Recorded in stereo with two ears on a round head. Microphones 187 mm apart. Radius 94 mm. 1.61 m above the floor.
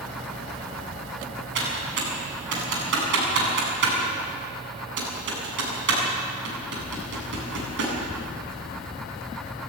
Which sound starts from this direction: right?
Typing on a keyboard, at 1.6 s.